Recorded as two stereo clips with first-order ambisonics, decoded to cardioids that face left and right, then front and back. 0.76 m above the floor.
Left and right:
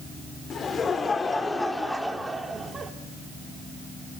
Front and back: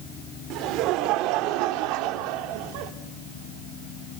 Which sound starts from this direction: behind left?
Laughter, at 0.5 s.